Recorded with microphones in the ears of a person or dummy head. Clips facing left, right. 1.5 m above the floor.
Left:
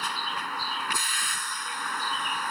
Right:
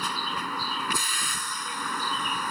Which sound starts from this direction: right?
A vehicle, at 0.0 s.